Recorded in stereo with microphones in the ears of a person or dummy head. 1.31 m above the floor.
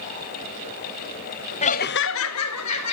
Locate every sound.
1.6 s laughter: 30° left (ahead or behind), 0.9 m; by 2.9 s 80° left, 2 m